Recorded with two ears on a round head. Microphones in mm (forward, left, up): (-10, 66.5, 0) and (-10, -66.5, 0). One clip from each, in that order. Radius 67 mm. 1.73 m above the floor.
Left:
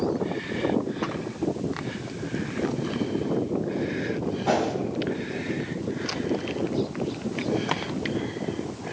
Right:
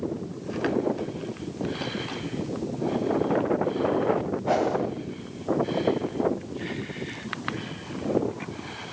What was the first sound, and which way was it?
A whoosh, 60° left (ahead or behind).